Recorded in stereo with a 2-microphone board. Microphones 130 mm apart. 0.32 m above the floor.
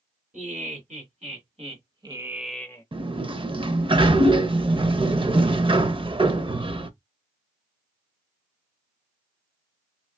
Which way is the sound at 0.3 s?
70° right (ahead or behind).